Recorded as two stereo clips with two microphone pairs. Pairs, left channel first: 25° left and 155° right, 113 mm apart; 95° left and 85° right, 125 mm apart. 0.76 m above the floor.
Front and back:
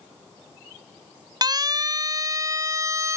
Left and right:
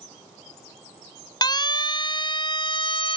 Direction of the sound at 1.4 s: 150° left.